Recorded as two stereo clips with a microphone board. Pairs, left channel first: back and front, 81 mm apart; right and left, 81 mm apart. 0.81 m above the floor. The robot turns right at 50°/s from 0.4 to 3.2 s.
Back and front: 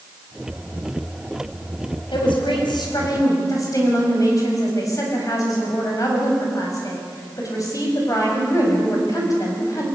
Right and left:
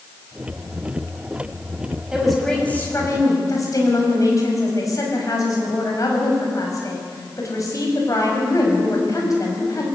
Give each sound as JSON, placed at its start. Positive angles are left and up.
{"t": 2.1, "sound": "a woman speaking", "azimuth_deg": 170, "distance_m": 6.0}